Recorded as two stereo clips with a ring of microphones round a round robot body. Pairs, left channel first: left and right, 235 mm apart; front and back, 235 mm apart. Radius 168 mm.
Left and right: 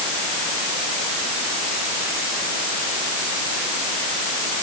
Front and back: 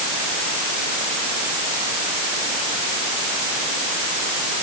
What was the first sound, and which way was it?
Only background noise.